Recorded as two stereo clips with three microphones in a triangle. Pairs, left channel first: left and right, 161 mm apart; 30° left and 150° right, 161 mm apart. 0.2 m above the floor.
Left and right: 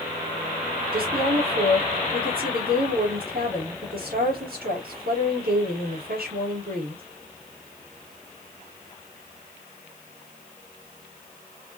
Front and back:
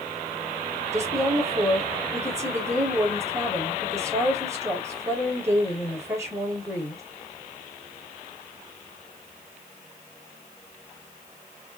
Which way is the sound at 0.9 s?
80° right.